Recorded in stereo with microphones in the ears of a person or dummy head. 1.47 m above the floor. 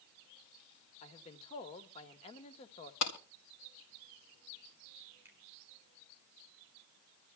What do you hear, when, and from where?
1.0 s a man speaking: 35° left (ahead or behind), 1.5 m
3.0 s a clap: 75° left (ahead or behind), 3.5 m
5.2 s a finger snap: 10° right (ahead or behind), 3 m